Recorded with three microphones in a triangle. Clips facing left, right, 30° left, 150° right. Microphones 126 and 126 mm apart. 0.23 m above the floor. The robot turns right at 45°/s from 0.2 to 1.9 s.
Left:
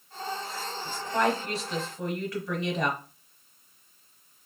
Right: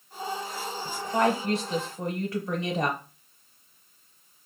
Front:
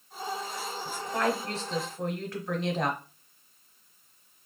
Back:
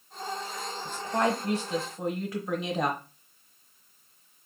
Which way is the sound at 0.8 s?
140° right.